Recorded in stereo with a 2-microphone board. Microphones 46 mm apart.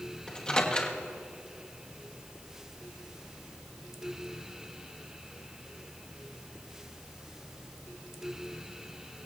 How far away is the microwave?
About 1.3 m.